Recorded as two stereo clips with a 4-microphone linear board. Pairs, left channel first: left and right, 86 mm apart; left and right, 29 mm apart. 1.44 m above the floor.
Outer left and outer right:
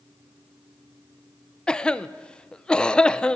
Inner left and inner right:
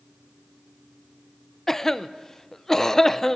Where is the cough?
10° left (ahead or behind), 0.5 m.